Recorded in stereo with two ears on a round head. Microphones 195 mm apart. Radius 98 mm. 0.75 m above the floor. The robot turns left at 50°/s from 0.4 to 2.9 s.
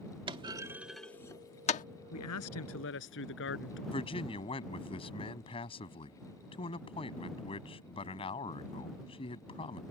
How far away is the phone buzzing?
I don't hear a phone buzzing.